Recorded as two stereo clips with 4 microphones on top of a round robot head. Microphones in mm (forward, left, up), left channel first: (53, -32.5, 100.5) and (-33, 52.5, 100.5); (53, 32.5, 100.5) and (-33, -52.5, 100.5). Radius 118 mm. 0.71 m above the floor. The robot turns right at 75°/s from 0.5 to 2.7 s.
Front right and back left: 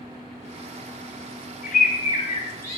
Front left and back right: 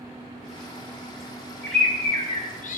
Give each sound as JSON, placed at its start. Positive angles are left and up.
{"t": 1.6, "sound": "a bird", "azimuth_deg": -55, "distance_m": 3.5}